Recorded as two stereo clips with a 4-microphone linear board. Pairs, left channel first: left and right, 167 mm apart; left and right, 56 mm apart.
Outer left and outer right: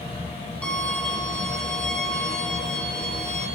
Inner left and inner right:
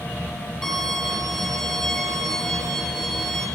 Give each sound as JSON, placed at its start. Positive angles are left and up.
{"t": 0.6, "sound": "a violin", "side_deg": 5, "distance_m": 7.0}